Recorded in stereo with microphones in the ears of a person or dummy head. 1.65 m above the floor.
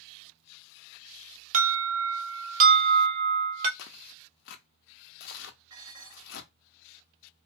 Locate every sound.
1.5 s an alarm: 45° right (ahead or behind), 1.1 m
3.8 s tearing paper: 70° left (ahead or behind), 0.5 m
5.7 s dishes clattering: 35° right (ahead or behind), 1.6 m